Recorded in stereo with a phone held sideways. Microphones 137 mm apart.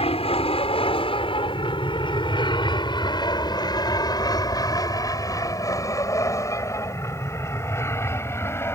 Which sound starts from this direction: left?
An aircraft, at 0.0 s.